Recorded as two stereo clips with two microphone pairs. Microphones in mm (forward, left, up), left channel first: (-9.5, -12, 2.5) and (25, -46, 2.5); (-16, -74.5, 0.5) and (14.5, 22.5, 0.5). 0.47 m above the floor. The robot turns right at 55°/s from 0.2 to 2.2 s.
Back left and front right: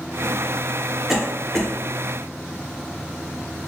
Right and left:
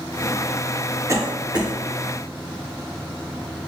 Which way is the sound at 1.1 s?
30° left.